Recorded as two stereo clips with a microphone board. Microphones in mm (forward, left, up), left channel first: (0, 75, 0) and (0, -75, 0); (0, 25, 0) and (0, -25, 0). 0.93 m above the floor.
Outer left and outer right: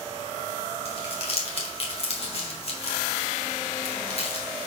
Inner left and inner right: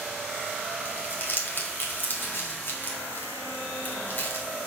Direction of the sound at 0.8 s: 45° left (ahead or behind).